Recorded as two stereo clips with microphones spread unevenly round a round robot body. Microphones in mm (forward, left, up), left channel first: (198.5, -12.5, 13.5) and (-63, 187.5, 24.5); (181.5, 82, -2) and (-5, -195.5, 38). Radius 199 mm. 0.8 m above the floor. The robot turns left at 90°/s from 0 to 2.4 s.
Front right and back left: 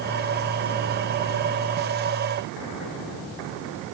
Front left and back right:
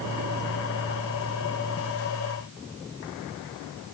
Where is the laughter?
No laughter in this recording.